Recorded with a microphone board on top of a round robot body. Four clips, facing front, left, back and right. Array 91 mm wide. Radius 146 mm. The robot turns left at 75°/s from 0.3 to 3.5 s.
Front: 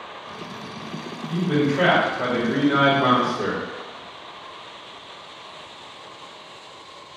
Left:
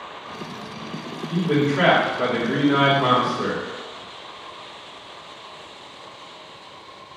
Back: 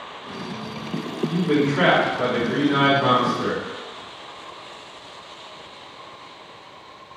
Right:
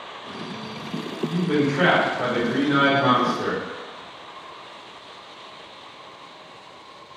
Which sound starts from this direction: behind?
A man speaking, at 1.3 s.